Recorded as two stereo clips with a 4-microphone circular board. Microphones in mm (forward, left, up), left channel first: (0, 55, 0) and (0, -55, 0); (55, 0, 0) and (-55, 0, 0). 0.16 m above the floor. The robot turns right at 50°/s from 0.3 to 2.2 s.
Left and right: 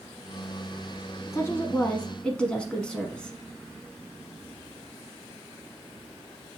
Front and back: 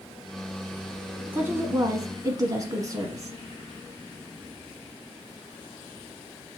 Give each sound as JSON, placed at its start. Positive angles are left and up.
{"t": 1.3, "sound": "a woman speaking", "azimuth_deg": 120, "distance_m": 1.1}